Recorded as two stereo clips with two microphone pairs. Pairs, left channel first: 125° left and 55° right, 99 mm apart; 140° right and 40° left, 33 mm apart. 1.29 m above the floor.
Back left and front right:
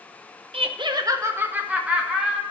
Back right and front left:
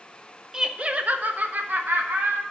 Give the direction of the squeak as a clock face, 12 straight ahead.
No squeak in this recording.